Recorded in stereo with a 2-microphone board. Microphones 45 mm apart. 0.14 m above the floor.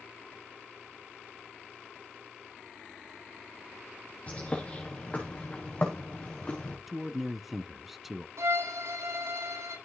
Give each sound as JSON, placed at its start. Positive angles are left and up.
{"t": 4.3, "sound": "a bird", "side_deg": 30, "distance_m": 5.5}
{"t": 6.9, "sound": "a man speaking", "side_deg": -5, "distance_m": 1.2}
{"t": 8.4, "sound": "a violin", "side_deg": -90, "distance_m": 8.5}